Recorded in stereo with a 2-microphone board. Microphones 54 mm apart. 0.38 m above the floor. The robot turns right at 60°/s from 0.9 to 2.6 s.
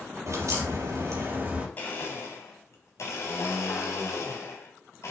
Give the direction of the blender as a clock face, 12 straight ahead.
11 o'clock.